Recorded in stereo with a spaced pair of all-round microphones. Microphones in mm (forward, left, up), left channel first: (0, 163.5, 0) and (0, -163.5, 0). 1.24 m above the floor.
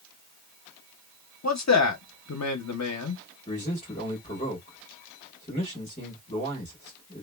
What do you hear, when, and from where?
1.4 s a man speaking: 55° left (ahead or behind), 0.6 m
3.5 s a man speaking: 20° left (ahead or behind), 1.4 m